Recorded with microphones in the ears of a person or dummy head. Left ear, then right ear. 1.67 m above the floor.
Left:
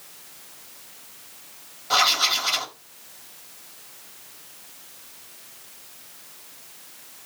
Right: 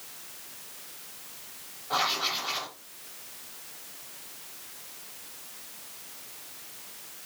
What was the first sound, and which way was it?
Writing, 60° left (ahead or behind).